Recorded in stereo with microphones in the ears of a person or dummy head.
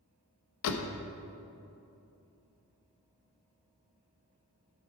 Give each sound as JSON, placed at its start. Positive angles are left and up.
{"t": 0.6, "sound": "a door slam", "side_deg": 75, "distance_m": 0.9}